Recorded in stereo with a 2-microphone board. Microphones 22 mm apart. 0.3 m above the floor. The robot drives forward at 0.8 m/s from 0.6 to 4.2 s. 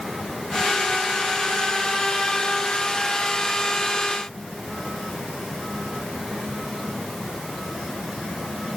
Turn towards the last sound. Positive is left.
No sound to turn to.